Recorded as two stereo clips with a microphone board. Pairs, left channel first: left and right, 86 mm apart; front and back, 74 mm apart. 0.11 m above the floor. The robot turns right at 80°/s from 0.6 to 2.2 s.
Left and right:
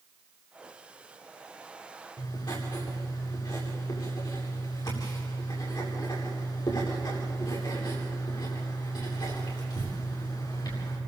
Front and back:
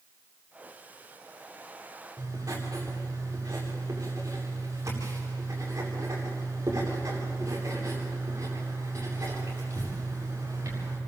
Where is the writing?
125° left, 8.5 m; by 11.0 s 130° left, 8.5 m.